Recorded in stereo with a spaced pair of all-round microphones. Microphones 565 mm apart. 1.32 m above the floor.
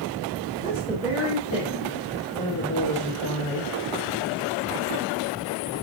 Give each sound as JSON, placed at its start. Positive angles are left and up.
{"t": 0.6, "sound": "a woman speaking", "side_deg": -10, "distance_m": 4.0}